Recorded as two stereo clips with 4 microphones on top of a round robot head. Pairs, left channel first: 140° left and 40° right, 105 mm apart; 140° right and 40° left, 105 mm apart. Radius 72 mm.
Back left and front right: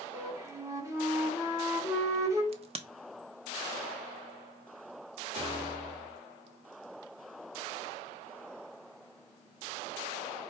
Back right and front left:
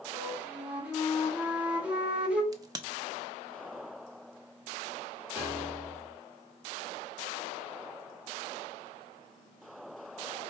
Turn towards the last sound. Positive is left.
turn(degrees=-30)